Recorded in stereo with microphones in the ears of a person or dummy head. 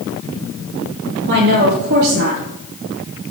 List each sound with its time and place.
1.3 s a woman speaking: 60° right (ahead or behind), 2.5 m